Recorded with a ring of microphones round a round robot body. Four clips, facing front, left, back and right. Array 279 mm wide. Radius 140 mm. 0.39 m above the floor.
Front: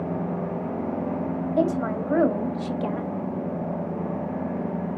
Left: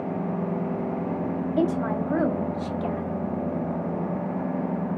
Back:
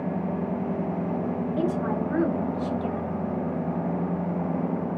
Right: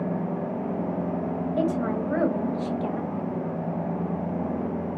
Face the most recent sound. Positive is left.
turn(degrees=10)